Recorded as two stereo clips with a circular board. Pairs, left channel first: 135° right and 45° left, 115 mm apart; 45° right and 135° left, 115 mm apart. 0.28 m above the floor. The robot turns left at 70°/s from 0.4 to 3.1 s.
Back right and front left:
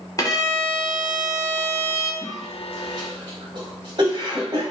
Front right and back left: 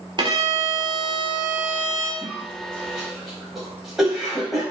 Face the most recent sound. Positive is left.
turn(degrees=50)